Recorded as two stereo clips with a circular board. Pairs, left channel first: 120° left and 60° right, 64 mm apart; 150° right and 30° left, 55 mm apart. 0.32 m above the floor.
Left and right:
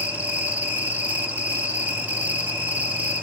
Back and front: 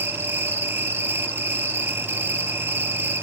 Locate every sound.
0.0 s an insect: straight ahead, 2 m